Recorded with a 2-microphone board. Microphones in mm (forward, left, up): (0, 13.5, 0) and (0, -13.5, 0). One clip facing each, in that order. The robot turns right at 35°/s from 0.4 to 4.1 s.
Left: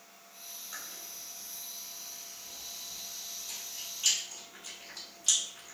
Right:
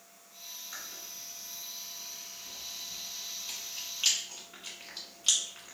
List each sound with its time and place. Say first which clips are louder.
0.7 s chewing: right 1 dB; 5° right (ahead or behind), 0.9 m; by 5.8 s 40° right (ahead or behind), 0.9 m